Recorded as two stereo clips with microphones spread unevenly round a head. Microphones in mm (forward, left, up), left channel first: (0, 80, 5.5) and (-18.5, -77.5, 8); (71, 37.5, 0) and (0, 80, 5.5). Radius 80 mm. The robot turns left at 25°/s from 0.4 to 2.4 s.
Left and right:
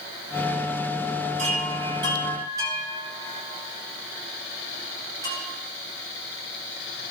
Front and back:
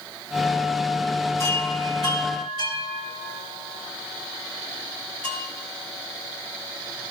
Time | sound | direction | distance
1.4 | a chime | 140° right | 7 m